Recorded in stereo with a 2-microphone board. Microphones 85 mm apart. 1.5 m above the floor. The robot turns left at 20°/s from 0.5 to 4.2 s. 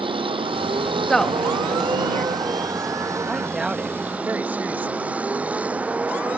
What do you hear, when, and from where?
0.0 s a vehicle: 85° right; by 6.4 s 15° right (ahead or behind)
1.1 s a woman speaking: 5° left (ahead or behind); by 2.4 s 30° left (ahead or behind)
3.3 s a woman speaking: centre (ahead or behind); by 5.1 s 20° right (ahead or behind)